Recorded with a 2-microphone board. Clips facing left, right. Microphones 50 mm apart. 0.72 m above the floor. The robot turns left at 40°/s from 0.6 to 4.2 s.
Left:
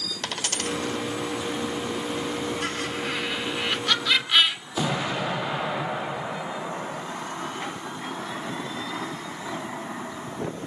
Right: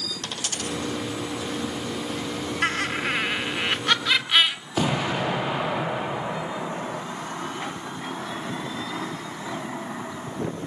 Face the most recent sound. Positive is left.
turn(degrees=-45)  # may be behind; listen again after turning